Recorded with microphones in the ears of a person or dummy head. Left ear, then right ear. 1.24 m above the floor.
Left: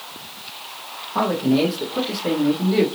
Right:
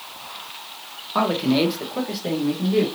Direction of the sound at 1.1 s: 40° right (ahead or behind).